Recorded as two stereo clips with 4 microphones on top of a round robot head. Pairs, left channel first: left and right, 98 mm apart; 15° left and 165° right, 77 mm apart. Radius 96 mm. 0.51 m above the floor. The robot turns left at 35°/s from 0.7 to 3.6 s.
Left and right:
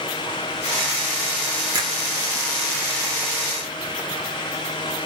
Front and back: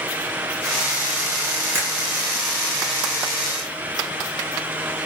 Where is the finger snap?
120° right, 1.2 m; by 1.9 s 130° right, 1.2 m.